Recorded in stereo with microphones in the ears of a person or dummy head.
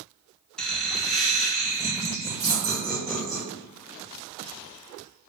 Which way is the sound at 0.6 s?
Centre (ahead or behind).